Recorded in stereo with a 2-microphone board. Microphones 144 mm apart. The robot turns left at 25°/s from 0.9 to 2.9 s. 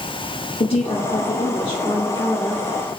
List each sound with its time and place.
0.6 s a woman speaking: 60° left, 1.1 m; by 3.0 s 10° left, 1.1 m